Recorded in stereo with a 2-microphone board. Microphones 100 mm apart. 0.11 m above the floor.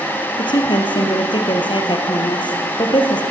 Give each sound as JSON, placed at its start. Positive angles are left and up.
{"t": 0.4, "sound": "a woman speaking", "side_deg": 50, "distance_m": 3.0}